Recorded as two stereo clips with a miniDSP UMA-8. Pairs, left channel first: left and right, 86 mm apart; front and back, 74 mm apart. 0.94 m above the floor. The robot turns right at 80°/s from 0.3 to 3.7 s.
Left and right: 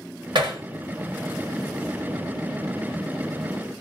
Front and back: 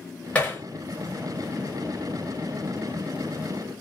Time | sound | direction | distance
0.3 | hammering | 70° right | 1.4 m